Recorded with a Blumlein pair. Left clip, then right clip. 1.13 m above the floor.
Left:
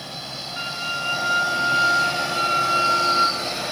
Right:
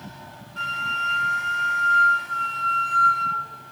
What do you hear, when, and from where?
0.6 s a flute: 10° left, 0.8 m